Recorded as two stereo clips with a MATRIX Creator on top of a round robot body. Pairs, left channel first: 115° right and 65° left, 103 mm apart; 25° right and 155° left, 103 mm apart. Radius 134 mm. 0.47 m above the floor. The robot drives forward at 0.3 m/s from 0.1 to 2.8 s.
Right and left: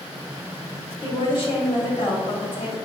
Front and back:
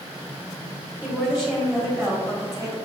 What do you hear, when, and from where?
1.0 s a woman speaking: 130° right, 1.7 m; by 2.8 s 145° right, 2 m